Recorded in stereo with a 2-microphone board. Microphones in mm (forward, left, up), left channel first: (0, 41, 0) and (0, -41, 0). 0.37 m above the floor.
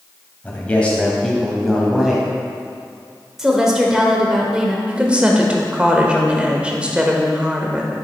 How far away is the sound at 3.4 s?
About 1.2 m.